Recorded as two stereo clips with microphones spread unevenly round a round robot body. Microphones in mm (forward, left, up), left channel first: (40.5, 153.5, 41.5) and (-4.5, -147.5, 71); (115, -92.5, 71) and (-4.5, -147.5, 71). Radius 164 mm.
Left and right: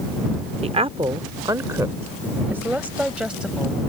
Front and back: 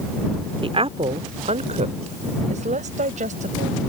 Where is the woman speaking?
165° right; by 3.8 s 170° left.